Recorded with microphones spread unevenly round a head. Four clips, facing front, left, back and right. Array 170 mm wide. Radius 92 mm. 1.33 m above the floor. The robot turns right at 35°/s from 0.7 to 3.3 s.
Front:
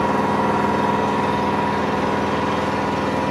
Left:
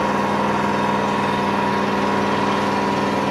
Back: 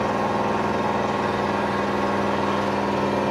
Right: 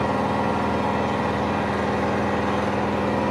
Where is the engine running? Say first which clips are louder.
Left 3 dB, front 4 dB; 40° left, 0.7 m; by 3.3 s 130° left, 0.7 m.